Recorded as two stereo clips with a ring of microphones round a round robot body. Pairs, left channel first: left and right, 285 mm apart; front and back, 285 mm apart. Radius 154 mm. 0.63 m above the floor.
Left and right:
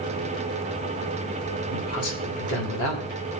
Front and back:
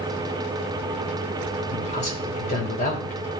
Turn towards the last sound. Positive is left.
turn(degrees=65)